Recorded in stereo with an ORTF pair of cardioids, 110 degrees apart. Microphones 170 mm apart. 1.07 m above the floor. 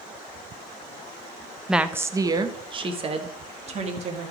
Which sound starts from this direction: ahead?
A woman speaking, at 1.7 s.